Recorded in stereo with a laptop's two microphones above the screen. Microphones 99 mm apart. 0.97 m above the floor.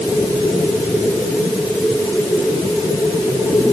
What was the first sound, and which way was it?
Only background noise.